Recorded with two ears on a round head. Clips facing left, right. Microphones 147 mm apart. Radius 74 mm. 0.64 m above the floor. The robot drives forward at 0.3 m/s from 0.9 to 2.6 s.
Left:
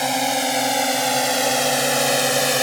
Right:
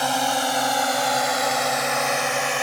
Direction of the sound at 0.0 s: 15° left (ahead or behind).